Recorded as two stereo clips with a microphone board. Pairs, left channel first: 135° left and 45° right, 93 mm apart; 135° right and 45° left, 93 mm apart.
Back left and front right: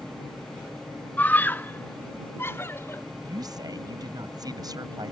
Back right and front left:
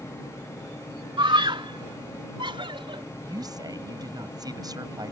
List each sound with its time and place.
1.2 s a scream: 65° left; by 3.0 s 70° left
3.2 s a woman speaking: straight ahead